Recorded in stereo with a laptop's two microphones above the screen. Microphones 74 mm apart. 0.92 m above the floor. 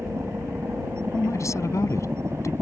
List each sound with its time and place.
0.0 s a helicopter: 40° right (ahead or behind)
1.1 s a man speaking: 45° left (ahead or behind)